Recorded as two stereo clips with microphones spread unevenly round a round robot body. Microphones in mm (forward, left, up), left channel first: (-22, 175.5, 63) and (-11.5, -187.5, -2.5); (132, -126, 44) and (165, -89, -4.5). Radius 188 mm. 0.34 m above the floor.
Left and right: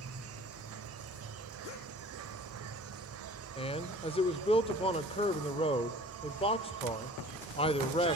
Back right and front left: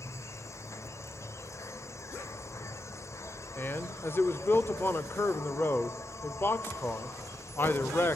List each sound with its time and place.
0.0 s an insect: 60° right, 0.9 m
3.6 s a man speaking: 15° left, 0.8 m